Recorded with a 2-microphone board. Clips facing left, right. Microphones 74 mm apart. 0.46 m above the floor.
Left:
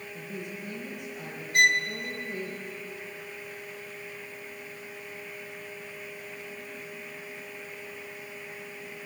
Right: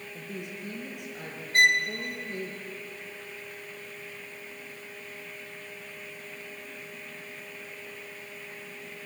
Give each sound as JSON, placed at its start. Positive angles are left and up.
{"t": 0.1, "sound": "a woman speaking", "side_deg": -85, "distance_m": 7.0}
{"t": 1.5, "sound": "a violin", "side_deg": -40, "distance_m": 1.2}